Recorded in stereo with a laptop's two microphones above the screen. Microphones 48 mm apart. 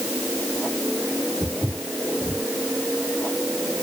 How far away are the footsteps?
About 3.5 m.